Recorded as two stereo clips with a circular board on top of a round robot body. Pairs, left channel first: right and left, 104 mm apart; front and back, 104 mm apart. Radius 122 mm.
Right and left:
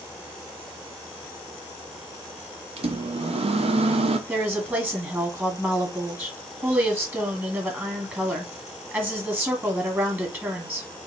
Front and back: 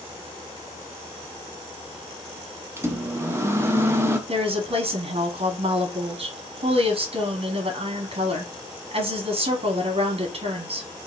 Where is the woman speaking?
160° left, 1.9 m.